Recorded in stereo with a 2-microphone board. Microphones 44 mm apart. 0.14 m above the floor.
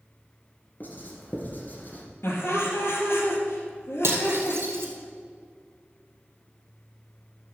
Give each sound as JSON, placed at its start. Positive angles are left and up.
{"t": 0.8, "sound": "writing", "side_deg": 45, "distance_m": 2.5}
{"t": 2.2, "sound": "laughter", "side_deg": 65, "distance_m": 3.0}
{"t": 4.0, "sound": "cutlery clinking", "side_deg": -65, "distance_m": 2.5}